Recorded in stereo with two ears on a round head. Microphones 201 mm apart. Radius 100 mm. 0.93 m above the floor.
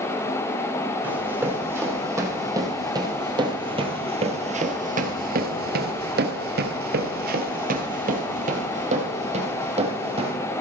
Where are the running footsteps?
10° right (ahead or behind), 3 m; by 10.3 s 25° right (ahead or behind), 2.5 m.